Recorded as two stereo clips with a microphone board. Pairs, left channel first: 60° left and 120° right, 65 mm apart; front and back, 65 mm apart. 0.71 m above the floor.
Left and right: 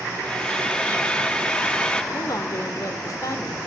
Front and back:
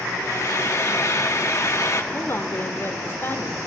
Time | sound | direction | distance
0.2 | frying | 10° right | 1.7 m
2.1 | a woman speaking | 45° left | 2.5 m